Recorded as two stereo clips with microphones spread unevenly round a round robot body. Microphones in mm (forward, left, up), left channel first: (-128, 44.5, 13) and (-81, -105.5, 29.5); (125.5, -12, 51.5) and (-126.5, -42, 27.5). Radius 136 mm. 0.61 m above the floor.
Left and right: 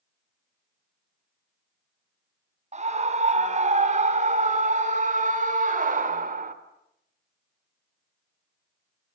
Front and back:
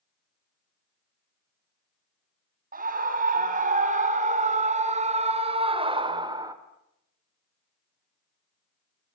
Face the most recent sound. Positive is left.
turn(degrees=-100)